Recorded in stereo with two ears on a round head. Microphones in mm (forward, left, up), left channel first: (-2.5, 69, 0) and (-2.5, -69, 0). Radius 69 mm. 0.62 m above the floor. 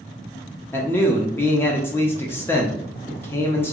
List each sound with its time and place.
0.7 s a man speaking: 15° left (ahead or behind), 0.6 m